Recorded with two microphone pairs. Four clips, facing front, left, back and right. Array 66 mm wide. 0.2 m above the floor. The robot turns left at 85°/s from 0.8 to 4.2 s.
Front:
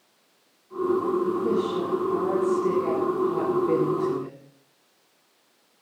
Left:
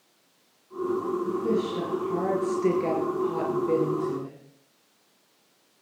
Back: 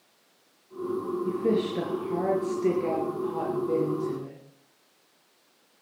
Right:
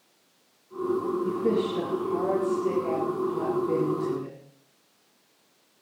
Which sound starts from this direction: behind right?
A woman speaking, at 1.2 s.